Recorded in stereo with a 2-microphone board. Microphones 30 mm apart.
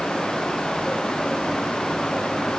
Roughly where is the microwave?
I don't hear a microwave.